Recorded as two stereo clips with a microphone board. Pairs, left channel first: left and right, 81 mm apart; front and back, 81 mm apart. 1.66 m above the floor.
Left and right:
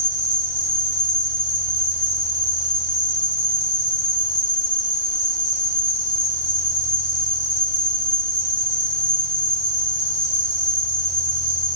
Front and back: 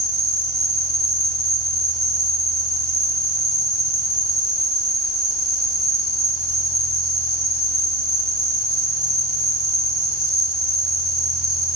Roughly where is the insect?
Behind left.